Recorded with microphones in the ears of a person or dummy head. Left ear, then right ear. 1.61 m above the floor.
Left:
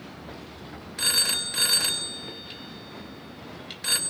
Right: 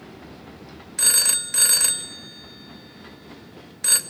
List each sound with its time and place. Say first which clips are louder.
1.0 s a phone ringing: right 2 dB; 10° right (ahead or behind), 0.9 m